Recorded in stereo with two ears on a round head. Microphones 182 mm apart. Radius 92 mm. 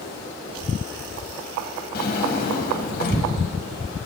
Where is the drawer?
50° left (ahead or behind), 2.5 m.